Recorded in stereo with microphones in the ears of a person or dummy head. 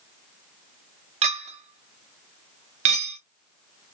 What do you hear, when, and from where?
1.2 s a clink: 30° right (ahead or behind), 0.5 m